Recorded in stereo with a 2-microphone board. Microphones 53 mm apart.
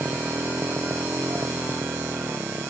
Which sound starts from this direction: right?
A motorcycle, at 0.0 s.